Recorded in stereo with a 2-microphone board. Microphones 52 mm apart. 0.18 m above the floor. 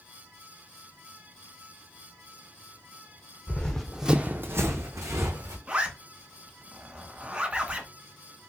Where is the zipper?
25° right (ahead or behind), 0.7 m.